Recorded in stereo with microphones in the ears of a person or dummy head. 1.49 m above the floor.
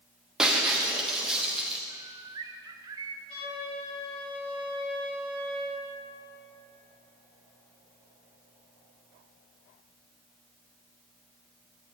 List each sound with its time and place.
0.4 s breaking glass: centre (ahead or behind), 1.1 m
1.9 s a bird: 20° right (ahead or behind), 0.7 m
3.3 s a flute: 30° left (ahead or behind), 6 m